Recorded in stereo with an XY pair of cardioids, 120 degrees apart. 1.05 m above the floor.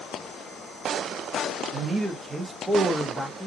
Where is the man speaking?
40° right, 1.0 m; by 3.5 s 20° left, 0.9 m.